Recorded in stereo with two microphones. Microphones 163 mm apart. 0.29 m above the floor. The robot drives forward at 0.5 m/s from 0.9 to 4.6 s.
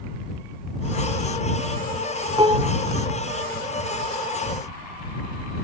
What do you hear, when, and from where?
2.4 s dishes clattering: 30° right (ahead or behind)